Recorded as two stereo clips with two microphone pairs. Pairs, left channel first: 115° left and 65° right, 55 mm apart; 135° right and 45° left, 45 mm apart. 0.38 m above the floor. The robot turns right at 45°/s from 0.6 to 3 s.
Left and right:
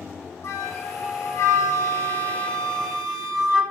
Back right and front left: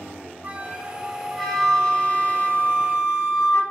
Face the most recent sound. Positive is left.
turn(degrees=-150)